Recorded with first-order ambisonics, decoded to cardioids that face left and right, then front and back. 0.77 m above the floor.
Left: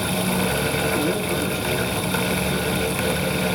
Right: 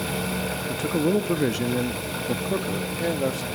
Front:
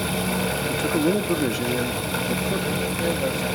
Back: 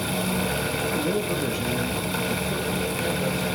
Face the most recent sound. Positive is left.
turn(degrees=-85)